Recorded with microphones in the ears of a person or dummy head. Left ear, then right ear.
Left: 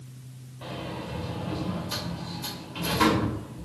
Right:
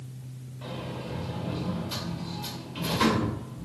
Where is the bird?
No bird in this recording.